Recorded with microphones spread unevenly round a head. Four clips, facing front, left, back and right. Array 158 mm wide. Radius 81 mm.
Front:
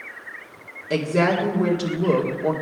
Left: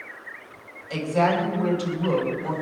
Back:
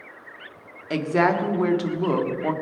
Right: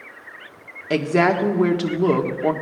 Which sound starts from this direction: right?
A woman speaking, at 0.9 s.